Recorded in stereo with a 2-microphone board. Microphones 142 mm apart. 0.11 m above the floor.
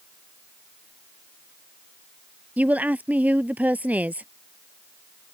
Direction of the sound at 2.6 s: 10° right (ahead or behind).